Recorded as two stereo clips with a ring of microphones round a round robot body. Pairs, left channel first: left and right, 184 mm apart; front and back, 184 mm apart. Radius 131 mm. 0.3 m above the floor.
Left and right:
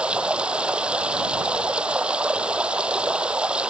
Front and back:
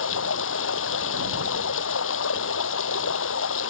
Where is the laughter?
I don't hear laughter.